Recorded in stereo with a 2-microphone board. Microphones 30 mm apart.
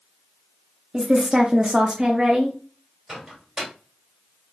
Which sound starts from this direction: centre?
A microwave, at 3.1 s.